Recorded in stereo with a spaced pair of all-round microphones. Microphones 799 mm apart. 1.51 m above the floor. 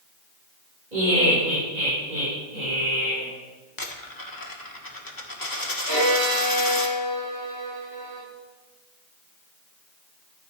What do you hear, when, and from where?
0.9 s laughter: 80° right, 6 m
3.8 s a dropped coin: 25° left (ahead or behind), 1.5 m
5.9 s a violin: 35° right (ahead or behind), 6.5 m